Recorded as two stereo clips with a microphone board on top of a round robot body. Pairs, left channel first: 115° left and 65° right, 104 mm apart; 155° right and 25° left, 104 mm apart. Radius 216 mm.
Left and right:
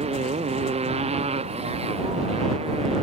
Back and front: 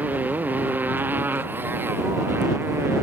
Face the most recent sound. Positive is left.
turn(degrees=-45)